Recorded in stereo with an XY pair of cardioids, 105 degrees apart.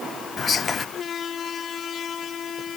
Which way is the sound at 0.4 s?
45° left.